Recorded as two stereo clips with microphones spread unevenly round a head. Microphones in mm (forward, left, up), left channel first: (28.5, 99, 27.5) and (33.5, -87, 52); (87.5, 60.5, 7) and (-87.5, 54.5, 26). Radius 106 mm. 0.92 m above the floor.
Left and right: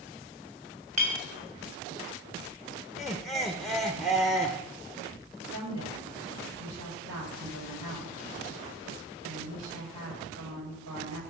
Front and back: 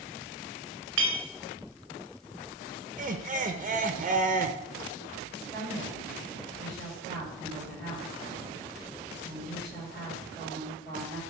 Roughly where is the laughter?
Behind.